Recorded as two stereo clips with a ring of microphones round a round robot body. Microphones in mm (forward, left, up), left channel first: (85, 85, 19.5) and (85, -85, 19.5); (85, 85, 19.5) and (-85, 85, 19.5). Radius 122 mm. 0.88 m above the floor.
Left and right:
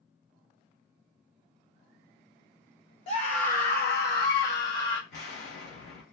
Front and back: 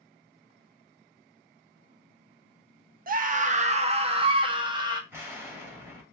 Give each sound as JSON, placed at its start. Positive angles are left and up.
{"t": 3.1, "sound": "a scream", "azimuth_deg": 150, "distance_m": 0.7}
{"t": 5.1, "sound": "an explosion", "azimuth_deg": 105, "distance_m": 2.0}